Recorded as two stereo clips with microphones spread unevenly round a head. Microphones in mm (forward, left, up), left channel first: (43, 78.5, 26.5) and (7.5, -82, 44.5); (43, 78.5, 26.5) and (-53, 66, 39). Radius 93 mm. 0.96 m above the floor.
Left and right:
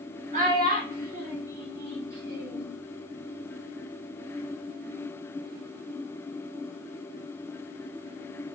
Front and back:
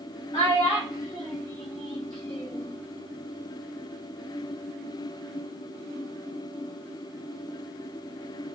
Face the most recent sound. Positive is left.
turn(degrees=-80)